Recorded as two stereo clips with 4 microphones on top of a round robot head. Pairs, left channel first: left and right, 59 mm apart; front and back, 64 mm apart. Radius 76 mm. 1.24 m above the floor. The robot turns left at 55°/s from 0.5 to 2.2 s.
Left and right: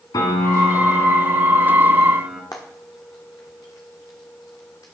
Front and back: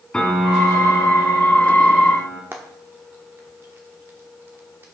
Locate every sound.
0.1 s a piano: 75° left, 2.5 m; by 2.4 s 20° right, 2.5 m
2.5 s frying: 140° left, 0.9 m